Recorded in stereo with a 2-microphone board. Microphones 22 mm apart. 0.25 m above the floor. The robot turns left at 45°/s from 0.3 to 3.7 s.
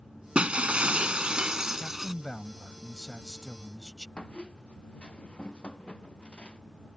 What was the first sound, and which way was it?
Breaking glass, 80° right.